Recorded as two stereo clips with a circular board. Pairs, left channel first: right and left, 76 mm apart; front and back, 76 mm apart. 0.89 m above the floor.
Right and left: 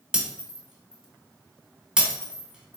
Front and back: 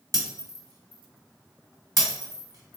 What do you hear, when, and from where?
0.1 s breaking glass: 165° left, 1.2 m